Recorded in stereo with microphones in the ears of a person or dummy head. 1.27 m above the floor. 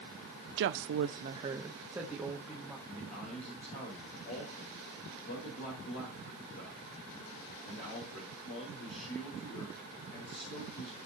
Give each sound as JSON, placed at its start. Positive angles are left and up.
{"t": 0.6, "sound": "a woman speaking", "side_deg": -60, "distance_m": 0.6}
{"t": 2.9, "sound": "a man speaking", "side_deg": 50, "distance_m": 4.0}